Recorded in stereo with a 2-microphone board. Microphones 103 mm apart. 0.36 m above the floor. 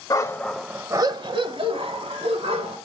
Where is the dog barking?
35° left (ahead or behind), 0.6 m; by 2.8 s 75° right (ahead or behind), 1.8 m.